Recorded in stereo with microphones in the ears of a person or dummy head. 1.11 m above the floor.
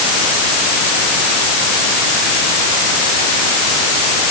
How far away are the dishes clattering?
I don't hear dishes clattering.